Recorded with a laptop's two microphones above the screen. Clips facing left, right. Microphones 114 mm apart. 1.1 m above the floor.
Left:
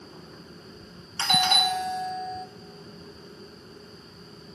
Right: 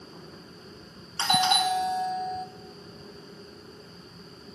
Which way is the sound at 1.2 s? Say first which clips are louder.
Right 1 dB; 20° right (ahead or behind).